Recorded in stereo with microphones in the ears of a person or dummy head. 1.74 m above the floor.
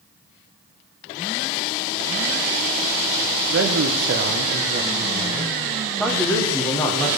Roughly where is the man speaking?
Right.